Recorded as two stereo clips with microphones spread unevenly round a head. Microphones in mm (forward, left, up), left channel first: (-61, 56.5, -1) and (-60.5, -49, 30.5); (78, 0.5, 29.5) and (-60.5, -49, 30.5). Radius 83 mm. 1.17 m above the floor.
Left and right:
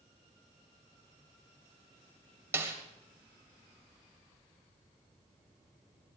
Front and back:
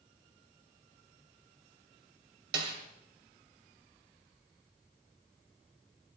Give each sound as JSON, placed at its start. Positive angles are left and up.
{"t": 2.5, "sound": "a snare drum", "azimuth_deg": -155, "distance_m": 3.0}